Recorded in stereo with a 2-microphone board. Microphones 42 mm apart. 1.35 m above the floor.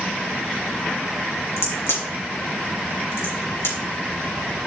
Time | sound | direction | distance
1.6 | a crack | 70° left (ahead or behind) | 4 m